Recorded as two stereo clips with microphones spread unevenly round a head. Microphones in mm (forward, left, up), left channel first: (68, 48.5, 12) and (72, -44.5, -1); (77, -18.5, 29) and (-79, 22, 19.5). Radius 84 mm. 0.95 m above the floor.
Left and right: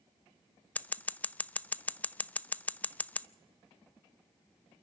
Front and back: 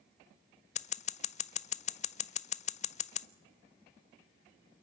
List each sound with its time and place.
0.8 s scissors: 15° left, 0.6 m